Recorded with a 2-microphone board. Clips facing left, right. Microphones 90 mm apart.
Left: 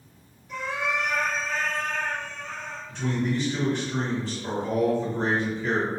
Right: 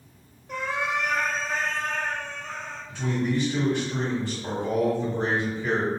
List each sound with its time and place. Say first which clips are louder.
0.5 s a cat meowing: right 1 dB; 60° right (ahead or behind), 0.8 m; by 2.8 s 10° right (ahead or behind), 2 m
2.9 s a man speaking: right 1 dB; 5° right (ahead or behind), 2.0 m